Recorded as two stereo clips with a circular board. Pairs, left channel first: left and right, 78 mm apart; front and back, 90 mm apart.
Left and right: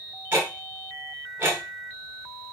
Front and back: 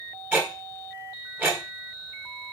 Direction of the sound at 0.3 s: 125° right.